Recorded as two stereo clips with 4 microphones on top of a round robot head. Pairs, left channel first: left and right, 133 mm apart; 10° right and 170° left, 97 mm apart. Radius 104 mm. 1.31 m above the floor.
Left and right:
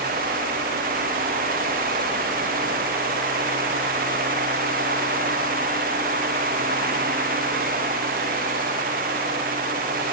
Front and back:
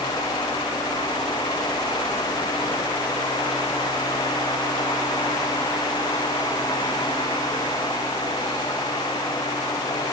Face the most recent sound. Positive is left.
No sound to turn to.